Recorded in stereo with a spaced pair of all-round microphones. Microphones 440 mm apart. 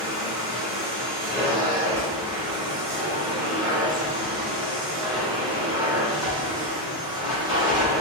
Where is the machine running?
10° right (ahead or behind), 2 m.